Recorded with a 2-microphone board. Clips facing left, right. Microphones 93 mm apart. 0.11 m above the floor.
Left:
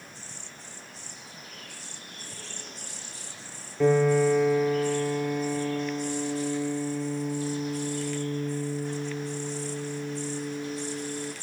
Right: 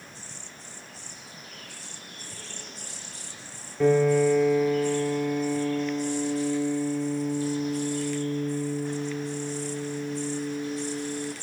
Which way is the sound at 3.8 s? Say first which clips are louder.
Right 1 dB; centre (ahead or behind).